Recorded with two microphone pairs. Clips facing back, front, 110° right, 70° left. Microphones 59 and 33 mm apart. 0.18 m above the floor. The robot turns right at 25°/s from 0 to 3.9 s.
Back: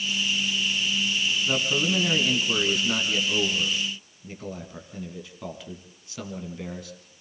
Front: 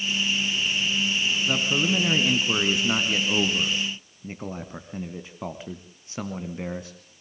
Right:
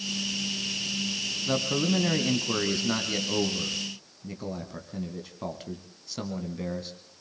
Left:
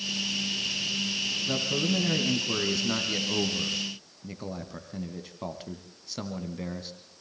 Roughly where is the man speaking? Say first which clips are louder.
Front 1 dB, right 3 dB; right.